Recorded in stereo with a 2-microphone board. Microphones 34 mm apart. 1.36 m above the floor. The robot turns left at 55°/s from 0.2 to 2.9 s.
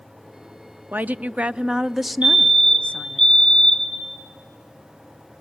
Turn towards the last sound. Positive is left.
turn(degrees=175)